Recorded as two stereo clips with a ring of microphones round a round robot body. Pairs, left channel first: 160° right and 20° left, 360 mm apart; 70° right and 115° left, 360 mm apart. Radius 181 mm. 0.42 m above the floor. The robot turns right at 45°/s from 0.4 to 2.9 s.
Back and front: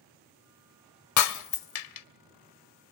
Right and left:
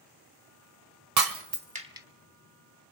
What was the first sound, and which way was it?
Breaking glass, 155° left.